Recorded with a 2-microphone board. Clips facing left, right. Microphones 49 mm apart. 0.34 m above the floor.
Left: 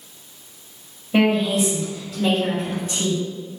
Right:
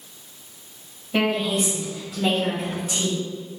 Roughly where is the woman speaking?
Centre.